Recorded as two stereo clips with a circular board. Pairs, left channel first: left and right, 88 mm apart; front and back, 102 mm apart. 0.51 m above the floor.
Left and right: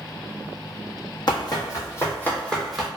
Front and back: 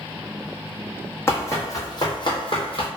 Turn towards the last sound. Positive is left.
turn(degrees=-5)